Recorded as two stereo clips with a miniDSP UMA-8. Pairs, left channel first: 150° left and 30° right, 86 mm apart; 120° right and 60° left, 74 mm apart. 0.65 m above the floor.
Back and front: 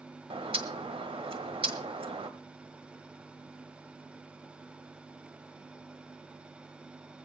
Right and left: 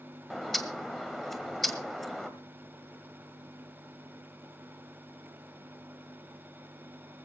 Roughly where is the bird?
Ahead right.